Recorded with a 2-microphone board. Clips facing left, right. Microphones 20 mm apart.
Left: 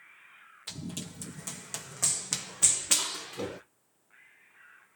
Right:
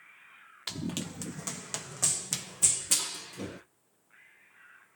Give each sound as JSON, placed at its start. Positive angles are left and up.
{"t": 0.7, "sound": "running footsteps", "side_deg": -65, "distance_m": 0.9}